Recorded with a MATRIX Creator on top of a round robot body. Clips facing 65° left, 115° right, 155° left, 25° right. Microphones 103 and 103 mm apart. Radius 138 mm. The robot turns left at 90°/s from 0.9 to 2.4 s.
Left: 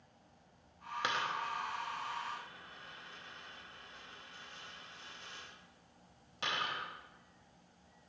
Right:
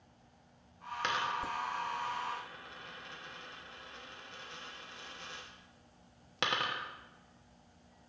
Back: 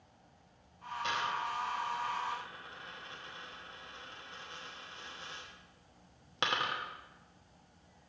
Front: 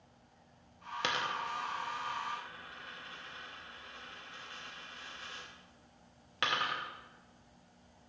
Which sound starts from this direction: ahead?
A dropped coin, at 1.0 s.